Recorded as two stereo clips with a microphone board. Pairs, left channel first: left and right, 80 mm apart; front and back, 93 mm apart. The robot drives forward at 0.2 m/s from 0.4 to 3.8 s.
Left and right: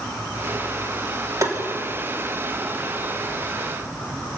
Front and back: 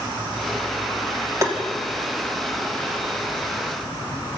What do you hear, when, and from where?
1.4 s tapping: 125° right, 2.5 m; by 1.6 s 130° right, 2.5 m